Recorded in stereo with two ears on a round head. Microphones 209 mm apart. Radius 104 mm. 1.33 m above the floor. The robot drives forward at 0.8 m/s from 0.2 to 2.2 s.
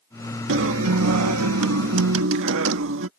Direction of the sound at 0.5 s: 60° right (ahead or behind).